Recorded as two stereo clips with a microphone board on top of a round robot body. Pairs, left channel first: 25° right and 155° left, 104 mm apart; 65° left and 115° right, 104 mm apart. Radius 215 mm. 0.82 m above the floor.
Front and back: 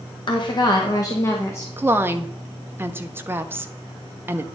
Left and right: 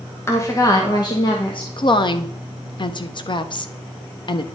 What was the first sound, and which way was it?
A woman speaking, 10° left.